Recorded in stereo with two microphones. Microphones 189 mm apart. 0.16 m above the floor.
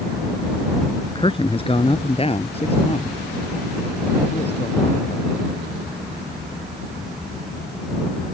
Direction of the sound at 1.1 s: 30° left (ahead or behind).